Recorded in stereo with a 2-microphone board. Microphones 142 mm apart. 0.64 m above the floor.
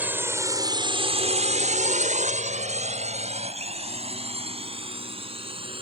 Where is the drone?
10° right (ahead or behind); by 5.8 s 40° right (ahead or behind).